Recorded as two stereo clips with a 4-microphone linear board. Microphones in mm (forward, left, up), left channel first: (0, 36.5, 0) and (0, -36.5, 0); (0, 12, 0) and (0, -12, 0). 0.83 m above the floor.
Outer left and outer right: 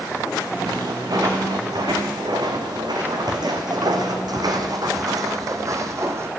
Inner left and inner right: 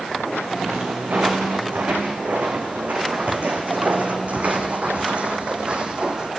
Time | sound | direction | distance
0.7 | footsteps | 65° right (ahead or behind) | 3 m